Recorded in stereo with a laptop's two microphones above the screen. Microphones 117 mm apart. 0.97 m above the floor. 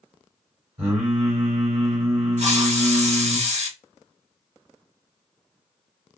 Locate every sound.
0.8 s singing: 60° right (ahead or behind), 1.8 m
2.4 s a hiss: 70° right (ahead or behind), 1.5 m